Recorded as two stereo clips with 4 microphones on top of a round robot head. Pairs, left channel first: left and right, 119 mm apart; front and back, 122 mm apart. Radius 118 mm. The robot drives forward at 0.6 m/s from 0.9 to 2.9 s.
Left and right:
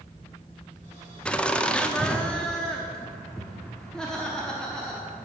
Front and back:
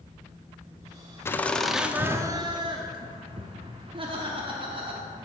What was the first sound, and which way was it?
Laughter, 25° left.